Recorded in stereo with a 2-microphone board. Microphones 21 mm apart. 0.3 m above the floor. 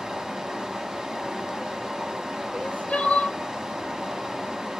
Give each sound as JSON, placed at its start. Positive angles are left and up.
{"t": 0.0, "sound": "running water", "side_deg": -30, "distance_m": 0.9}
{"t": 2.5, "sound": "crying", "side_deg": 75, "distance_m": 1.0}